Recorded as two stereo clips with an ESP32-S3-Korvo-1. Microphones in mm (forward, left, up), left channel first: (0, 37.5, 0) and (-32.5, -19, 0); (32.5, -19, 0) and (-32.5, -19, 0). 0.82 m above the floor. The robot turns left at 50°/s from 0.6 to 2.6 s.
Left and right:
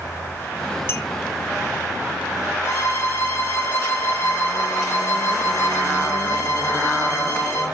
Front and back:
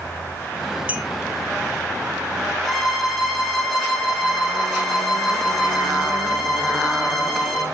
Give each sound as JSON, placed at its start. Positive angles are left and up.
{"t": 0.9, "sound": "a clink", "azimuth_deg": 110, "distance_m": 1.2}
{"t": 2.6, "sound": "a violin", "azimuth_deg": 85, "distance_m": 5.0}